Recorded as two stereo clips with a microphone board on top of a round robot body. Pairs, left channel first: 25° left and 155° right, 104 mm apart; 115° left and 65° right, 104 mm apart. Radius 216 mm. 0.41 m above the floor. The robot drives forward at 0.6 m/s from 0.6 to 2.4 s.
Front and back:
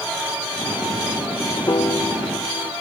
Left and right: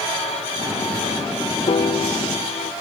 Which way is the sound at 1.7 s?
80° left.